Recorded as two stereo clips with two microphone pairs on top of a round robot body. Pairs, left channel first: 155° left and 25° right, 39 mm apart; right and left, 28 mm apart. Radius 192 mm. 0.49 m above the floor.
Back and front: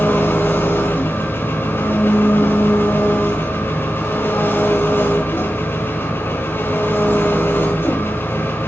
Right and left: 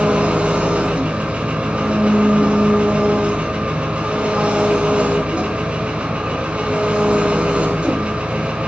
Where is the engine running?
135° left, 4.5 m.